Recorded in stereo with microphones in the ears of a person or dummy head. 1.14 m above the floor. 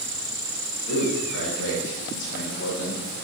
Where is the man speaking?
55° left (ahead or behind), 1.4 m; by 3.0 s 60° left (ahead or behind), 0.9 m.